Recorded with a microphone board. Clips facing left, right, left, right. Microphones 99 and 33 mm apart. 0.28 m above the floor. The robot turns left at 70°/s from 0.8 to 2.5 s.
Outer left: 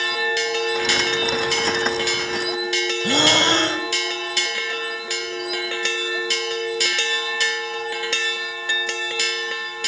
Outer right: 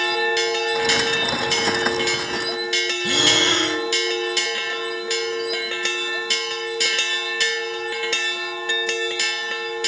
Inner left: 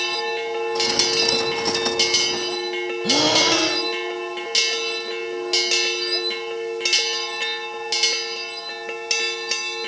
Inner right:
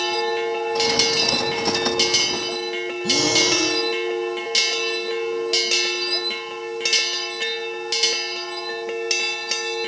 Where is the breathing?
35° left (ahead or behind), 1.5 m.